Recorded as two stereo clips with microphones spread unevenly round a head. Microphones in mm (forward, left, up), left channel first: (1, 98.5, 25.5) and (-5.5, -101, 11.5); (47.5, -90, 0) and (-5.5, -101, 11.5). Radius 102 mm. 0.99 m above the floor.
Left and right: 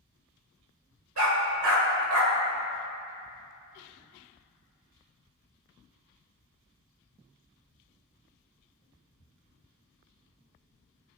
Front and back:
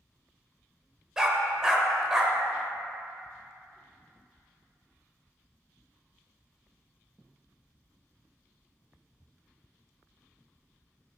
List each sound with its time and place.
1.2 s a dog barking: 95° right, 1.2 m